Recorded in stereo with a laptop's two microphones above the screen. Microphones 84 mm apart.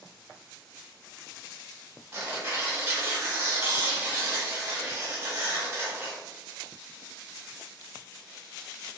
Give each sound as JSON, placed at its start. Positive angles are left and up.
{"t": 2.1, "sound": "tearing paper", "side_deg": -25, "distance_m": 1.7}